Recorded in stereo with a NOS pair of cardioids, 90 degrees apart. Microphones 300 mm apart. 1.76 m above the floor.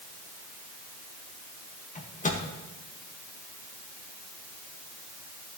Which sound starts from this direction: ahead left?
A microwave, at 1.9 s.